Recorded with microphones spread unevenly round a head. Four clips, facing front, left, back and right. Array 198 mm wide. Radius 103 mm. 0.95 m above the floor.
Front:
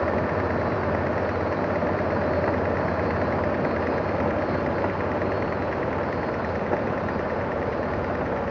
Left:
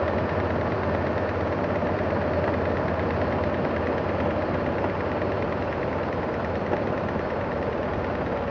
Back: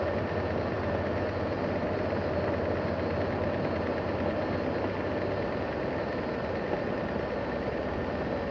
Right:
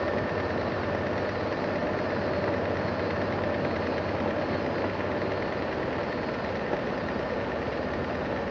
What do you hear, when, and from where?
Only background noise.